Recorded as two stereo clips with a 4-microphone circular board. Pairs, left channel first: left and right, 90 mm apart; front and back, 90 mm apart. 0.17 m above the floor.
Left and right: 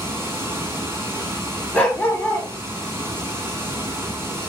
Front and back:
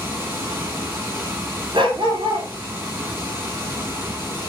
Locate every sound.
0.0 s running water: 130° right, 1.0 m
1.7 s a dog barking: 160° left, 0.7 m